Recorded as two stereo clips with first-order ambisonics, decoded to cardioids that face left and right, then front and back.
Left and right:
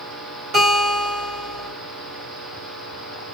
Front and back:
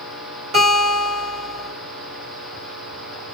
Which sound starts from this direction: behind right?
A guitar, at 0.5 s.